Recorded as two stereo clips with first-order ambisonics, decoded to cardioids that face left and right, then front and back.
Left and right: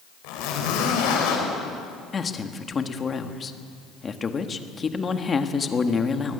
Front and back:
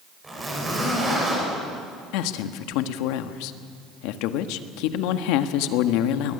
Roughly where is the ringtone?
No ringtone in this recording.